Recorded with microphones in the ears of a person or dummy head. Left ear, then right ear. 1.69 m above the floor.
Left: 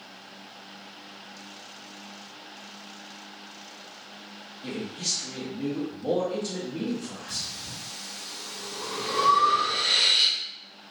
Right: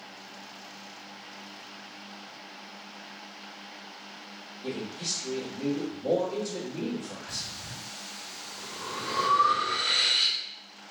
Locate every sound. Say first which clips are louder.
4.6 s a man speaking: left 3 dB; 55° left (ahead or behind), 0.8 m
7.3 s breathing: left 4 dB; 60° left (ahead or behind), 1.9 m